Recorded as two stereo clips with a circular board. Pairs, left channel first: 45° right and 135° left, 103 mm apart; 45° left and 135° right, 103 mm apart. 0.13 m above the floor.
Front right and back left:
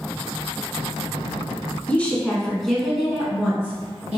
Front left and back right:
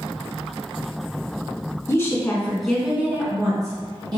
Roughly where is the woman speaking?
Ahead.